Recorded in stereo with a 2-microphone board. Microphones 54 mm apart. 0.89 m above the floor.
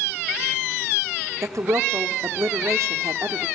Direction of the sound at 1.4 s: 70° right (ahead or behind).